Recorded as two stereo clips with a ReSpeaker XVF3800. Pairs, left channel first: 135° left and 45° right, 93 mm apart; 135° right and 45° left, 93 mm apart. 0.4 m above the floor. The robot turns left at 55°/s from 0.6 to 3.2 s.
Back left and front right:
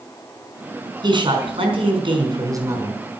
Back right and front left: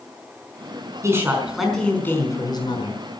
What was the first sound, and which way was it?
A man speaking, 10° right.